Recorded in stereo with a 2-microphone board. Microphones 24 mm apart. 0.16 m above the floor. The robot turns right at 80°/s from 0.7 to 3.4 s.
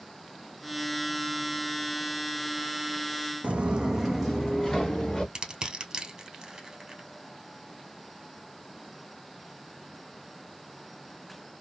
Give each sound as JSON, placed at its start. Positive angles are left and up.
{"t": 3.4, "sound": "footsteps", "side_deg": -65, "distance_m": 0.5}
{"t": 5.3, "sound": "crushing", "side_deg": -35, "distance_m": 1.3}